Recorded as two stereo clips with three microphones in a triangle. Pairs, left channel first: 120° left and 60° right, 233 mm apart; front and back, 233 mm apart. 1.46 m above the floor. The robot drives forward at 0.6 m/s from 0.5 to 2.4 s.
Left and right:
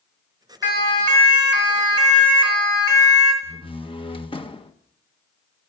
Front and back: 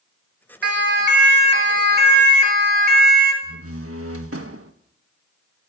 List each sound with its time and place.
0.6 s a siren: 140° left, 4 m; by 3.3 s 130° left, 5 m
3.4 s a door slam: 170° right, 1.4 m